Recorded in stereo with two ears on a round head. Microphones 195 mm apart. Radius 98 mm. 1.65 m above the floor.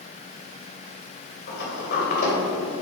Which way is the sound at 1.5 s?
50° left (ahead or behind).